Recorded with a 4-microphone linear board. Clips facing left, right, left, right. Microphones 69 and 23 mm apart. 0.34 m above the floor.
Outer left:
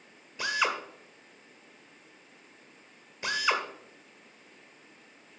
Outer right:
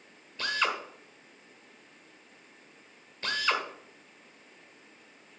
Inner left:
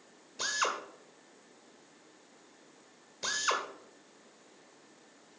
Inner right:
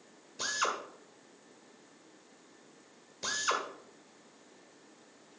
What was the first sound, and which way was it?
A drill, 15° left (ahead or behind).